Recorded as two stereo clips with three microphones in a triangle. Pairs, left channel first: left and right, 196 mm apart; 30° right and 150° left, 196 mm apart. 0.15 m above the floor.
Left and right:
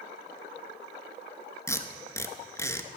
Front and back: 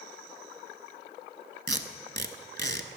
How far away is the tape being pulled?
About 0.6 m.